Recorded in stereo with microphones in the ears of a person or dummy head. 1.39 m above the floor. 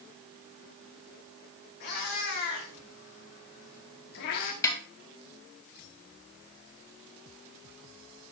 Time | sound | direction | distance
1.8 | a cat meowing | 55° left (ahead or behind) | 3 m
4.6 | a snare drum | 20° left (ahead or behind) | 1.6 m